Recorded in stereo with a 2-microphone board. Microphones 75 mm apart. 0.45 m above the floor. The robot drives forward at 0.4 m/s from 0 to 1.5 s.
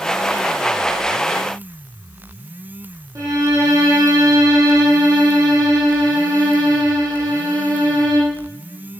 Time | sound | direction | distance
3.1 | a violin | 45° right (ahead or behind) | 6 m